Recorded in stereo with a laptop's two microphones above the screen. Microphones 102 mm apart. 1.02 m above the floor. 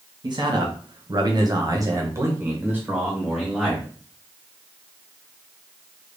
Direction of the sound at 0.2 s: 45° right (ahead or behind).